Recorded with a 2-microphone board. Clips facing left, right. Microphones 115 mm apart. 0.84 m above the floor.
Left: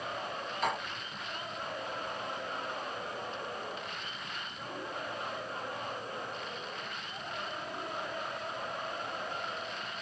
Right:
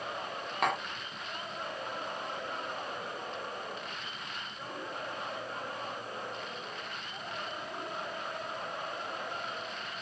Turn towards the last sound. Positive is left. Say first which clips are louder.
# right 3 dB
turn(degrees=-65)  # may be behind; listen again after turning